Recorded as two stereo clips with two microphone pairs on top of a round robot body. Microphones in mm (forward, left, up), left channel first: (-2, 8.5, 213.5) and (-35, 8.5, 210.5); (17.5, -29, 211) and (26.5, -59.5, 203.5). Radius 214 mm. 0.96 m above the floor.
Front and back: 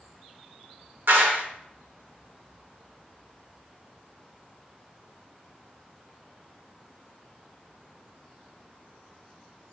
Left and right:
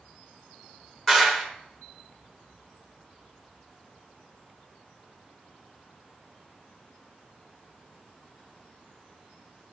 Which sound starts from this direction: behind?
A clap, at 1.1 s.